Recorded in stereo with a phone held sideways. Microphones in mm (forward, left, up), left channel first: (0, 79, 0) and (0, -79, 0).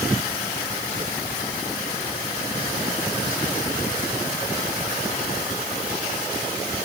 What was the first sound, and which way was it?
Only background noise.